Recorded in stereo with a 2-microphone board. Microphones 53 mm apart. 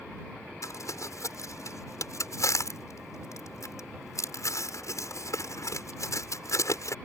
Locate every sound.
0.6 s crumpling: 80° left